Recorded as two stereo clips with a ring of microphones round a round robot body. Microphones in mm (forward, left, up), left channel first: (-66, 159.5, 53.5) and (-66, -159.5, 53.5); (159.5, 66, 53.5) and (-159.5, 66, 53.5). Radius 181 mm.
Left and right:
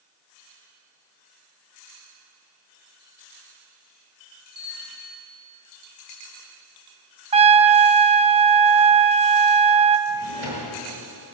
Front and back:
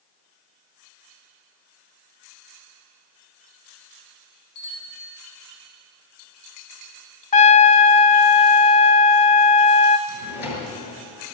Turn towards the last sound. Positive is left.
turn(degrees=-30)